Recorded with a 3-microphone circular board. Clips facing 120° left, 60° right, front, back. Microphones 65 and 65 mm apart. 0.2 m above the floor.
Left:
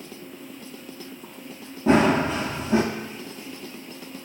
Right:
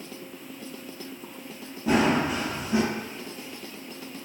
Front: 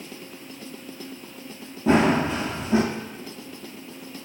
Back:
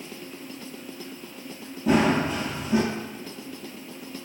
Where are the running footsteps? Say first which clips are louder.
Left 4 dB, front 2 dB; 60° left, 0.6 m.